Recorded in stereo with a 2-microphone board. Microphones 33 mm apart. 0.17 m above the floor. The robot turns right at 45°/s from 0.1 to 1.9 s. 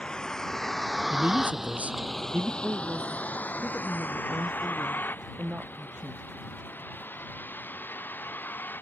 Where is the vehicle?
25° left (ahead or behind); by 8.8 s 90° left.